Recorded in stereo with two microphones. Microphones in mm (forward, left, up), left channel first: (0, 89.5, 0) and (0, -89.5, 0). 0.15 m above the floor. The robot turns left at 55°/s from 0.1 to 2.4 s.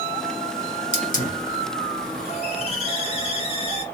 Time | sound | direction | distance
0.9 | a hiss | 125° left | 1.5 m